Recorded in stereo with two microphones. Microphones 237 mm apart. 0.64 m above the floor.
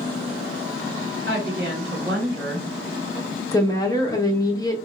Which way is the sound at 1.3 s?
50° right (ahead or behind).